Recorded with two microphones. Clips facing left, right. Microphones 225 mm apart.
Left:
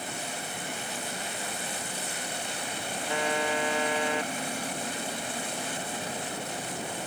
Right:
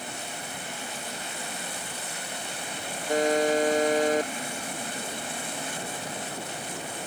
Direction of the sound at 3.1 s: 40° right (ahead or behind).